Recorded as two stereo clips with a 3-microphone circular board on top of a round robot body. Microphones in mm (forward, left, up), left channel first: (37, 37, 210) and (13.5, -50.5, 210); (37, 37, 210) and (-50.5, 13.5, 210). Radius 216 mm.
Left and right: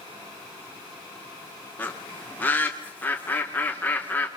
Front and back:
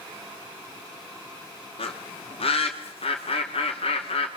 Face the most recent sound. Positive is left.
turn(degrees=0)